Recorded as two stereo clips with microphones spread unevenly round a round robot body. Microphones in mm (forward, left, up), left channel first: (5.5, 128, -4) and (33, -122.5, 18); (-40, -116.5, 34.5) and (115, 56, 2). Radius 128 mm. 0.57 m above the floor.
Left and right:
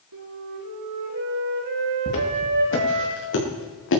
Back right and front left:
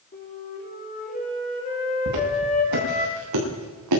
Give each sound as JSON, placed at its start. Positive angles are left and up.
{"t": 0.1, "sound": "a flute", "azimuth_deg": -75, "distance_m": 6.0}
{"t": 2.1, "sound": "footsteps", "azimuth_deg": 50, "distance_m": 6.5}